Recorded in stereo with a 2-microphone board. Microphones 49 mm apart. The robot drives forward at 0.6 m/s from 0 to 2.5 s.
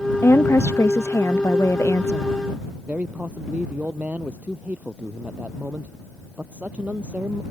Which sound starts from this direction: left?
A woman speaking, at 0.2 s.